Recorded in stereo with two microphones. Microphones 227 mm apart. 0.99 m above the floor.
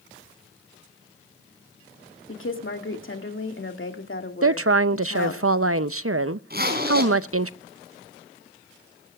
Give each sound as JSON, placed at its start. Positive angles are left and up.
{"t": 2.3, "sound": "a woman speaking", "side_deg": 60, "distance_m": 2.0}
{"t": 4.4, "sound": "a woman speaking", "side_deg": -75, "distance_m": 0.6}
{"t": 6.5, "sound": "a zipper", "side_deg": -45, "distance_m": 4.0}